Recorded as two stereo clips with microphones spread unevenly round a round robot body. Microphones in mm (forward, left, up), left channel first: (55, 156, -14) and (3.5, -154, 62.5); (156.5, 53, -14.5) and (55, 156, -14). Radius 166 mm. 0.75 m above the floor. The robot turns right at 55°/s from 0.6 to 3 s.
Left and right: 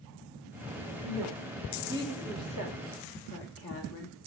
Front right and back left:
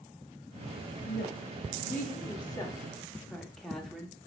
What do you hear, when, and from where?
1.0 s a woman speaking: 65° right, 1.9 m; by 4.2 s 40° left, 1.9 m